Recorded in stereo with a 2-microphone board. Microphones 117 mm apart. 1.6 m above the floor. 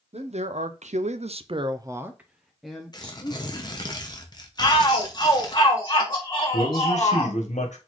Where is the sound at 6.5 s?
85° left, 1.2 m.